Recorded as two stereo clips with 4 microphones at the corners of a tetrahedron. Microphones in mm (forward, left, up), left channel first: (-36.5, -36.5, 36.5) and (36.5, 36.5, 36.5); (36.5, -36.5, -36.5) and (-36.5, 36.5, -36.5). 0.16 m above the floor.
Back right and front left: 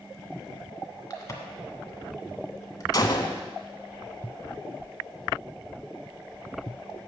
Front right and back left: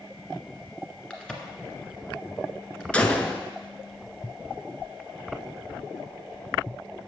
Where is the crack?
115° right, 1.6 m.